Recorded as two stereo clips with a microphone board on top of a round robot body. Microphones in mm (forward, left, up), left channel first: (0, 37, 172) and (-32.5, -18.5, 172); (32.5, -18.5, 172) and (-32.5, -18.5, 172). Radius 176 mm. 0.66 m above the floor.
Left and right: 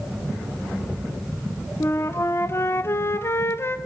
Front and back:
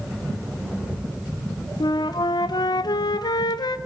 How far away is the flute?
About 0.8 m.